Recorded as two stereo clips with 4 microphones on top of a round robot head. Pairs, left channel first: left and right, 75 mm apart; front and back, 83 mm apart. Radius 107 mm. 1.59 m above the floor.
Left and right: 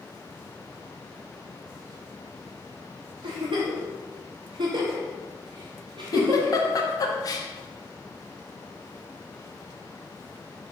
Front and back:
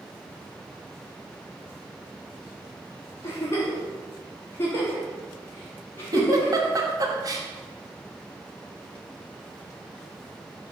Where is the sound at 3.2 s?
65° right, 1.1 m.